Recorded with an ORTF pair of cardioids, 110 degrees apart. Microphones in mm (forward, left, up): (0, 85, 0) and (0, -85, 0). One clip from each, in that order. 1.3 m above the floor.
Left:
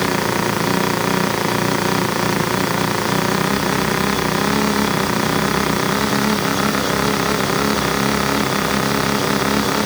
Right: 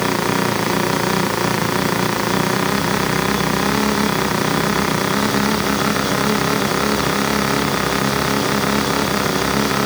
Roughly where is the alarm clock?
I don't hear an alarm clock.